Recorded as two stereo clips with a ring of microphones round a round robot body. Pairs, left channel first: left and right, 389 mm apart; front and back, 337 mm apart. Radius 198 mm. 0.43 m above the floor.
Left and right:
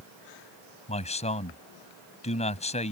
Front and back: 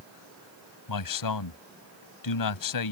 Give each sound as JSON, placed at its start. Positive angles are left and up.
{"t": 0.9, "sound": "a man speaking", "azimuth_deg": 15}